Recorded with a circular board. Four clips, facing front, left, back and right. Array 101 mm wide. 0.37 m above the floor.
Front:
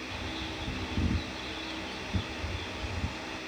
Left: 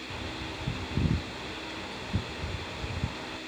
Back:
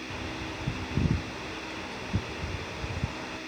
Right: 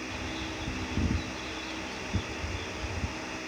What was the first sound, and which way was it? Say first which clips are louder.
A bird: right 2 dB, back 3 dB; 150° left.